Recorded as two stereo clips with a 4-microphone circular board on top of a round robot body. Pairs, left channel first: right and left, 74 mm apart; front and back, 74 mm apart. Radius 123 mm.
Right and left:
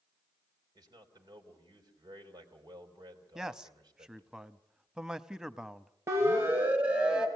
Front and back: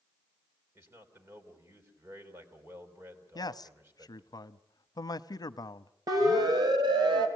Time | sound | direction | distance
0.8 | a man speaking | 125° left | 4.5 m
3.4 | a man speaking | 10° left | 1.0 m
6.1 | a siren | 145° left | 3.5 m